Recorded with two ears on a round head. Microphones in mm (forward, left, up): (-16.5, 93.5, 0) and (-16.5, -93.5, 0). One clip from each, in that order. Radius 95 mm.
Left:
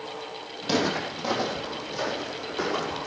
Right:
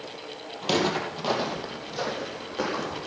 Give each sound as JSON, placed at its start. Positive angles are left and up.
{"t": 0.6, "sound": "footsteps", "side_deg": -35, "distance_m": 3.0}